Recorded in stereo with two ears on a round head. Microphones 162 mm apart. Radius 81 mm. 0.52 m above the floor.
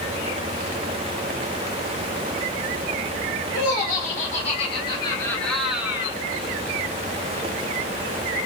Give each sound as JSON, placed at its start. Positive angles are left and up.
{"t": 3.5, "sound": "laughter", "side_deg": 55, "distance_m": 1.5}